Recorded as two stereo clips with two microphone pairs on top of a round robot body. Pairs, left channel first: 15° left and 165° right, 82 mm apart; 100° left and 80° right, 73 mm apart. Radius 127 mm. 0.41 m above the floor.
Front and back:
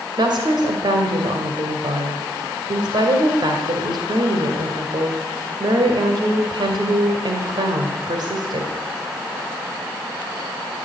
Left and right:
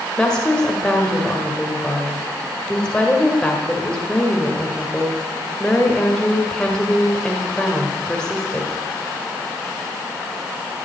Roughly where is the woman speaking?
Behind.